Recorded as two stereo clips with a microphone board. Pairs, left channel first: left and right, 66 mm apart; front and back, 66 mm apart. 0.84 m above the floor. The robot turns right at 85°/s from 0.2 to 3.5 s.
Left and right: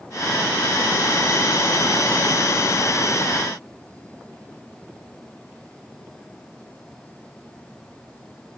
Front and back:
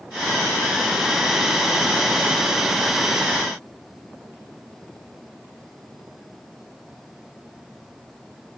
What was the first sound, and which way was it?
Only background noise.